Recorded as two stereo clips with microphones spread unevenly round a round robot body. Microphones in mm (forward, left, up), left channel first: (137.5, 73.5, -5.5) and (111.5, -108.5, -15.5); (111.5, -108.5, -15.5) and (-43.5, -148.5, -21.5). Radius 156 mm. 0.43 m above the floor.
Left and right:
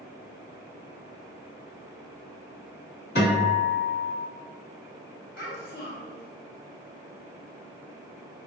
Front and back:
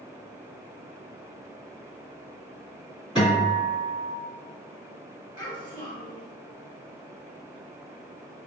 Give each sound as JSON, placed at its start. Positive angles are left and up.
{"t": 3.1, "sound": "a guitar", "azimuth_deg": 110, "distance_m": 1.8}
{"t": 5.4, "sound": "a child speaking", "azimuth_deg": 95, "distance_m": 1.5}